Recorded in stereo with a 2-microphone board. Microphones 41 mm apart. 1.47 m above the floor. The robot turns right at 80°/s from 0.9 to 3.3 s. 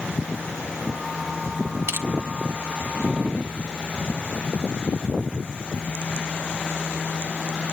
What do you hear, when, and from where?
1.9 s crushing: 65° right (ahead or behind), 1.4 m; by 2.1 s 80° right, 1.4 m